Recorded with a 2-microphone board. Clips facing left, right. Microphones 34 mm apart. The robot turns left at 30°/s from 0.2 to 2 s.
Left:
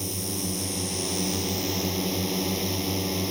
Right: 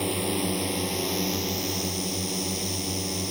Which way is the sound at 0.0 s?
140° right.